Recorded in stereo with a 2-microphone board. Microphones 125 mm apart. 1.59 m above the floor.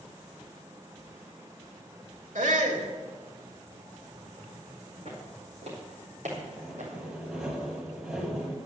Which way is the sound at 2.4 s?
75° right (ahead or behind).